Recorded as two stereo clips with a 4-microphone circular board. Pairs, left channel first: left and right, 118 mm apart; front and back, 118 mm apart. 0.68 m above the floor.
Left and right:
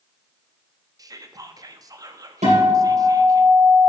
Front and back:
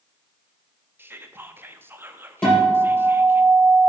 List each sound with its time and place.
1.0 s whispering: 120° right, 0.6 m
2.4 s a guitar: 80° right, 4 m